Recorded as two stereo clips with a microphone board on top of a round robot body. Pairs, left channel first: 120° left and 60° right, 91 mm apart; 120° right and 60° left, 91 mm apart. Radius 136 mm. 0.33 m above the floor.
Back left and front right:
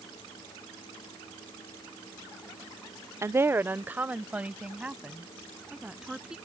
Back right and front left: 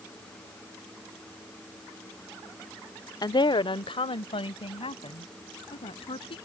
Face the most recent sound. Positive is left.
turn(degrees=-145)